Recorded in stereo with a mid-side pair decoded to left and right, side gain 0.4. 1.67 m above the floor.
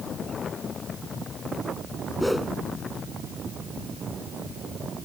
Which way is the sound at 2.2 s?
10° left.